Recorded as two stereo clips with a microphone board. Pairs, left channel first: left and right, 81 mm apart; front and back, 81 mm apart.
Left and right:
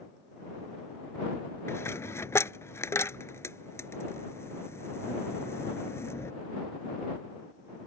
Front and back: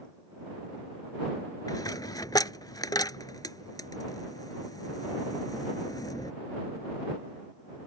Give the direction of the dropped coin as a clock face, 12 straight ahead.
11 o'clock.